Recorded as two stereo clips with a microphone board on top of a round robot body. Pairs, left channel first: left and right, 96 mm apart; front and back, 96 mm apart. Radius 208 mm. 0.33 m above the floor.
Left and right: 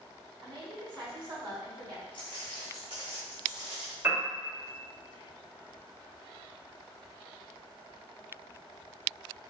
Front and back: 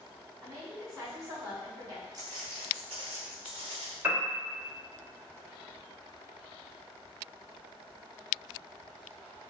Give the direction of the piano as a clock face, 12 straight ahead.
4 o'clock.